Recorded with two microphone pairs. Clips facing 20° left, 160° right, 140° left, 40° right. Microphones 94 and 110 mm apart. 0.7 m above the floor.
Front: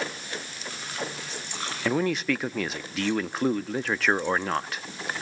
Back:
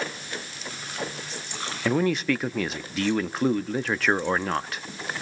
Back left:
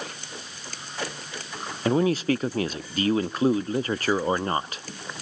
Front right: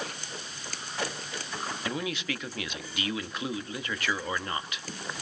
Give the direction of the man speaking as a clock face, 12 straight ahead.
8 o'clock.